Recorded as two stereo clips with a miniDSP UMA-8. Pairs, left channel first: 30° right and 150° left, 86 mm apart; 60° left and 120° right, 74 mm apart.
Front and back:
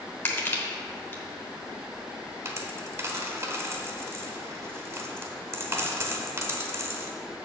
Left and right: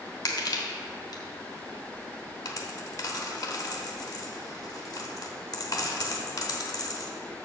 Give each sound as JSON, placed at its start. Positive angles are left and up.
{"t": 0.2, "sound": "crushing", "azimuth_deg": 35, "distance_m": 1.2}
{"t": 2.5, "sound": "a dropped coin", "azimuth_deg": 95, "distance_m": 0.9}